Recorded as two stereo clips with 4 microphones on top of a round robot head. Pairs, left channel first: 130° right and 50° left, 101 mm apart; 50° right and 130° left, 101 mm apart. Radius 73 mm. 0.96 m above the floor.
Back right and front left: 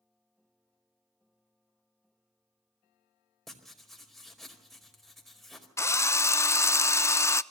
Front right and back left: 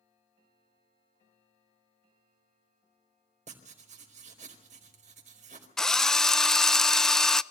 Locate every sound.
3.5 s writing: 140° left, 4.5 m
5.8 s a drill: 125° right, 0.8 m